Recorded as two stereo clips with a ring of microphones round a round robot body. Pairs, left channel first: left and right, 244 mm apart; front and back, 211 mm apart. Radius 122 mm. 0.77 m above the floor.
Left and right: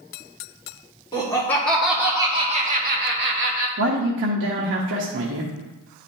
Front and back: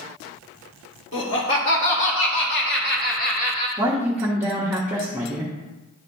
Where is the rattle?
I don't hear a rattle.